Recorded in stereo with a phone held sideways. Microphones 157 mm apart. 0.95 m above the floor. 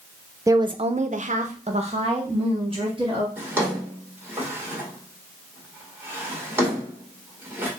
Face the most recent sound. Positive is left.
turn(degrees=-15)  # may be behind; listen again after turning